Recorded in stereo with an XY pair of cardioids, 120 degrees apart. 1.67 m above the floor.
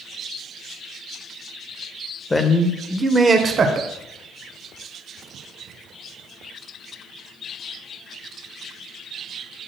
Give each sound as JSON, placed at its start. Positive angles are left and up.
{"t": 2.3, "sound": "a man speaking", "azimuth_deg": 20, "distance_m": 0.8}